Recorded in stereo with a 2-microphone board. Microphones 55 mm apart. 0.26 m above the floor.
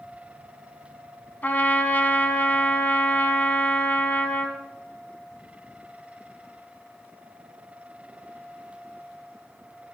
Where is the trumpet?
35° left (ahead or behind), 0.7 m.